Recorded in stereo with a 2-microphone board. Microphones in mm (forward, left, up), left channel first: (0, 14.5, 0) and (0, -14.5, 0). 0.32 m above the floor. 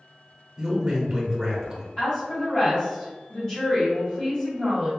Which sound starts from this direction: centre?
A man speaking, at 0.6 s.